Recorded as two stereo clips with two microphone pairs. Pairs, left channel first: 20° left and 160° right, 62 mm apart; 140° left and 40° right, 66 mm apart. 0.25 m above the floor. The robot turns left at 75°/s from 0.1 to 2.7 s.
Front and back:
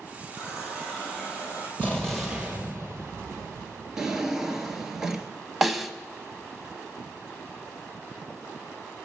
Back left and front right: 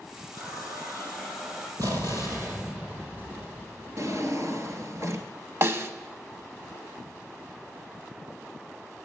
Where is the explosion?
40° right, 1.9 m; by 4.0 s 110° right, 1.9 m.